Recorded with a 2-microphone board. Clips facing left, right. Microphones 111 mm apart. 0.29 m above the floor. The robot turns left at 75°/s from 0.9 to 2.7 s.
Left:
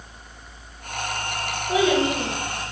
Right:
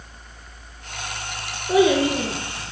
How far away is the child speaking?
About 2 m.